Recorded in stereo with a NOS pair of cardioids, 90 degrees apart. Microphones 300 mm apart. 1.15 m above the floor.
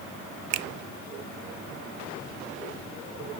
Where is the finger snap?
55° right, 0.7 m.